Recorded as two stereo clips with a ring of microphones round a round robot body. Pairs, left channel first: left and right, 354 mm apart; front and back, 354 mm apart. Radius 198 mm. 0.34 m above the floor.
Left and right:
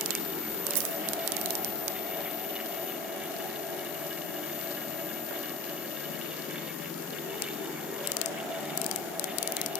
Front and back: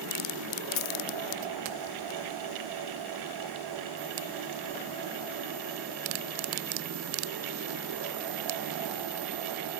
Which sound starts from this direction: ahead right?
A dropped coin, at 0.8 s.